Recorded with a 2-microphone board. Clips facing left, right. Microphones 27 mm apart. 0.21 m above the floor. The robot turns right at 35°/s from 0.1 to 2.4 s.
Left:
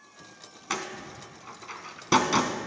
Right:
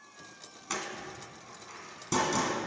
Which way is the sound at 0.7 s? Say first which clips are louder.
Left 3 dB; 25° left (ahead or behind).